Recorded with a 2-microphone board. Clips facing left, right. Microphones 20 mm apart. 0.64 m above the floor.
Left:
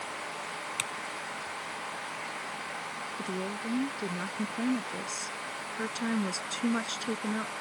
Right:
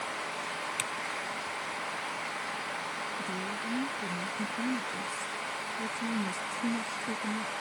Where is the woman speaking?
65° left (ahead or behind).